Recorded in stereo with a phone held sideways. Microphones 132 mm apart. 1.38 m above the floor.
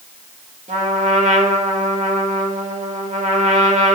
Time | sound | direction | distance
0.7 | a trumpet | 65° right (ahead or behind) | 1.8 m